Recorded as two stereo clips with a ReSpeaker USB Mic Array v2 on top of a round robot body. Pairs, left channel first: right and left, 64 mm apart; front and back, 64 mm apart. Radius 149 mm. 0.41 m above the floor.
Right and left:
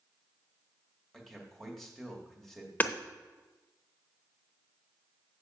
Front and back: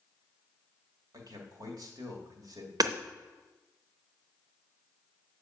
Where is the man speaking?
175° right, 2.5 m.